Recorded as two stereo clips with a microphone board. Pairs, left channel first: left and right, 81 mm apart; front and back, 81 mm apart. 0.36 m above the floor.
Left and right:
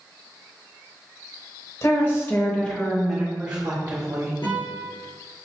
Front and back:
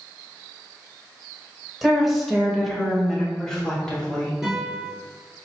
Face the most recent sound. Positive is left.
turn(degrees=95)